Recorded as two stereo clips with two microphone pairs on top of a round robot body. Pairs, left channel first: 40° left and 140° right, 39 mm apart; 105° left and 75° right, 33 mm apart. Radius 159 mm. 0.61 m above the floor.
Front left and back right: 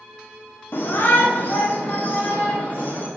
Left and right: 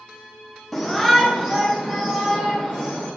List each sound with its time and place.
0.7 s a shout: 25° left, 1.7 m; by 3.1 s 15° right, 4 m